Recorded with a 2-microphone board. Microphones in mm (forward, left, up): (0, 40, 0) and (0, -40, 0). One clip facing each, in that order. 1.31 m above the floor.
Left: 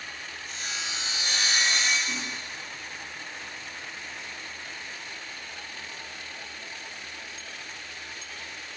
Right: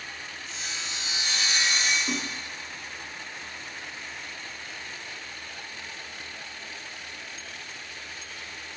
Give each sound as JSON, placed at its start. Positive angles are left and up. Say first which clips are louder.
{"t": 0.5, "sound": "sawing", "louder": "left 2 dB", "side_deg": 50, "distance_m": 1.3}
{"t": 2.1, "sound": "a splash", "louder": "right 3 dB", "side_deg": -45, "distance_m": 0.5}